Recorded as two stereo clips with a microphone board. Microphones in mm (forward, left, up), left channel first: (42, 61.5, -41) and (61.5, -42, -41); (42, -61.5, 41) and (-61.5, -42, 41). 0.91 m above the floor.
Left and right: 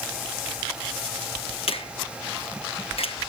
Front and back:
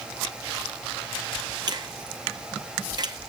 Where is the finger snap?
125° left, 0.8 m.